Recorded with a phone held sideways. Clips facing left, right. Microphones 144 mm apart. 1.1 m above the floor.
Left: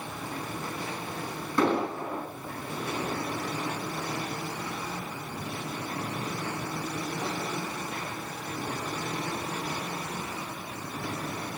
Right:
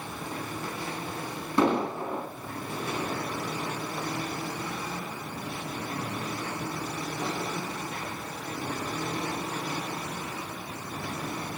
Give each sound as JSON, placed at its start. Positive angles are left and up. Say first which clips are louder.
{"t": 1.6, "sound": "an explosion", "louder": "right 1 dB", "side_deg": -25, "distance_m": 3.5}